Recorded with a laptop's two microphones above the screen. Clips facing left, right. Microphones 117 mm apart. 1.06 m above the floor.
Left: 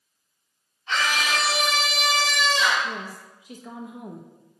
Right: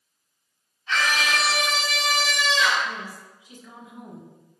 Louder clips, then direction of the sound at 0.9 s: Right 1 dB; 35° left (ahead or behind).